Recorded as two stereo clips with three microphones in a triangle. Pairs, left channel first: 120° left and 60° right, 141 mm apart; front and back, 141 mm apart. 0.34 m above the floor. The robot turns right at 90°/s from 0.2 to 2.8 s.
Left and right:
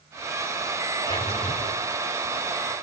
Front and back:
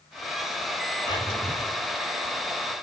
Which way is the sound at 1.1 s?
55° left.